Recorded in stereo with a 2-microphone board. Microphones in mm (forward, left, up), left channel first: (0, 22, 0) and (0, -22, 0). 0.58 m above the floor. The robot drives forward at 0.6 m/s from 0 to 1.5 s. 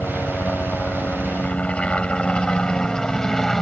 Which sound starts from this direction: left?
A helicopter, at 0.0 s.